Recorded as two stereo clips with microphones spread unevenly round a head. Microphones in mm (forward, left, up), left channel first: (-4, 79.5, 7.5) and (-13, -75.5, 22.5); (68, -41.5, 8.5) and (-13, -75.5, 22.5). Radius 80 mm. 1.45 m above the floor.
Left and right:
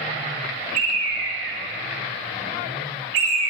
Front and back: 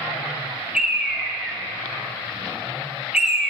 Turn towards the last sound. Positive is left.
turn(degrees=-80)